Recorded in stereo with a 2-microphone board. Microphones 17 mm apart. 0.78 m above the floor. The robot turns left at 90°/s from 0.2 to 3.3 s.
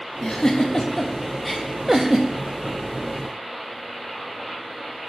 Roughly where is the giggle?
Left.